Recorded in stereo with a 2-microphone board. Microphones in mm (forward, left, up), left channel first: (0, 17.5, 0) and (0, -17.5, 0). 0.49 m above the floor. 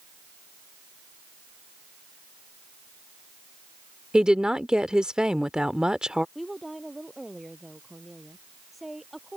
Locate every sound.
4.1 s a woman speaking: 20° right (ahead or behind)
6.3 s a woman speaking: 5° right (ahead or behind)